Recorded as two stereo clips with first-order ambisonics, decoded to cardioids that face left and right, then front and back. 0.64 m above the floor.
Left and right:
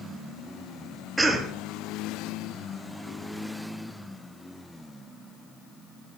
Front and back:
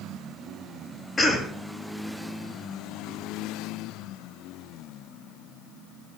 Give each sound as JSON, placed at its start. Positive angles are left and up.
{"t": 1.2, "sound": "a cough", "azimuth_deg": -20, "distance_m": 0.7}